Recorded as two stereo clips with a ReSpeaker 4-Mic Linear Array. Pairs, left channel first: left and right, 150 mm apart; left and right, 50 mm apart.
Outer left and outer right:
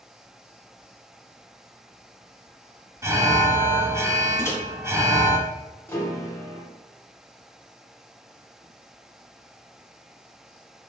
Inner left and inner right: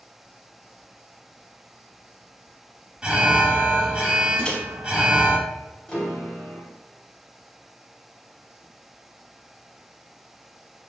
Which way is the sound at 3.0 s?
20° right (ahead or behind).